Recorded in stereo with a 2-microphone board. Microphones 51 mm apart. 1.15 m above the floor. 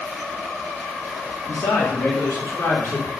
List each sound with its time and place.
1.5 s a man speaking: 65° left (ahead or behind), 1.9 m; by 3.1 s 75° left (ahead or behind), 3.5 m